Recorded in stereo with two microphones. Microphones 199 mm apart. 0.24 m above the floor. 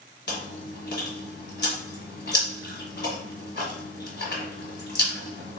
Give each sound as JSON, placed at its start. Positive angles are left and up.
{"t": 0.3, "sound": "chewing", "side_deg": 55, "distance_m": 1.6}